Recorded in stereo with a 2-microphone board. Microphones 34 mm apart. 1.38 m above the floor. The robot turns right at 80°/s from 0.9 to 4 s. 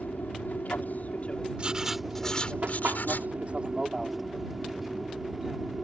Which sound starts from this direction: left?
An aircraft, at 0.0 s.